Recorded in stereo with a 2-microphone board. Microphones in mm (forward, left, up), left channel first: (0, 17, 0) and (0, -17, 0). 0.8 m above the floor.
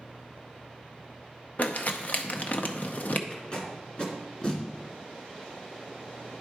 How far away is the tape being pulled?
About 1.9 m.